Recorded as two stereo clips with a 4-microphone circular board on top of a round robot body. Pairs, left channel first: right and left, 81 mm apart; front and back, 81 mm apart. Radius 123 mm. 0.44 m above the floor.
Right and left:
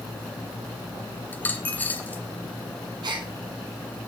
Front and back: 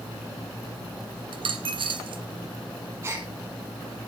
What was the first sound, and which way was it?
A dropped coin, 160° right.